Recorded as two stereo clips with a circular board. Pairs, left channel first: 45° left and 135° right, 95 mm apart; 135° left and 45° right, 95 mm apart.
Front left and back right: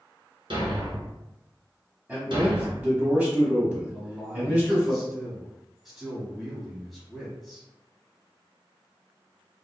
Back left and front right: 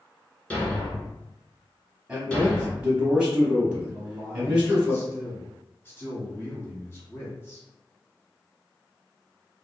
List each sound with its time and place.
0.5 s a thud: 150° right, 1.1 m
2.1 s a man speaking: 100° right, 1.0 m
3.9 s a man speaking: 140° left, 1.1 m